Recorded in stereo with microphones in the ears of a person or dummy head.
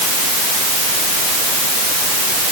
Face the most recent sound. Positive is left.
No sound to turn to.